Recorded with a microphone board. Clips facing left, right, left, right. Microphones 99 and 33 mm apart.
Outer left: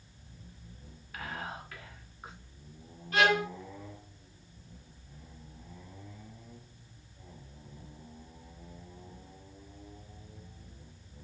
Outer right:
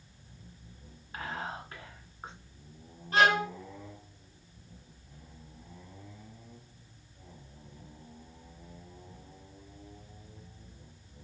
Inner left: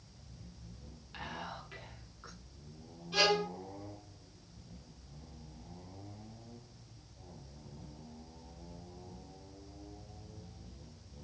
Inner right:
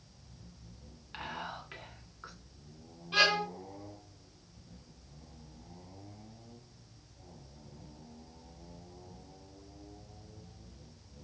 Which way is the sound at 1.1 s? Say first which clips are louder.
Outer right 2 dB, inner right 2 dB; 30° right (ahead or behind).